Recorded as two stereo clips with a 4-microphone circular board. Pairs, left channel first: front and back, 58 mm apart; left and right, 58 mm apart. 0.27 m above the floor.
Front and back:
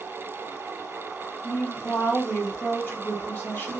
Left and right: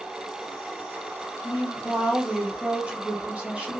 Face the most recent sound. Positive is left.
turn(degrees=-40)